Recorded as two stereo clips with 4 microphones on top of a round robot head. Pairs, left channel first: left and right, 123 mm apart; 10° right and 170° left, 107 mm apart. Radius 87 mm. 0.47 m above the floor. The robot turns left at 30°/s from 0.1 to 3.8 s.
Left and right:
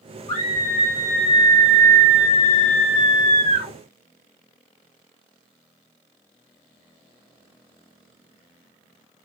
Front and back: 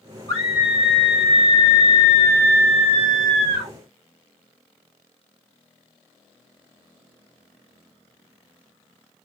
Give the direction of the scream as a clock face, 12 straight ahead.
11 o'clock.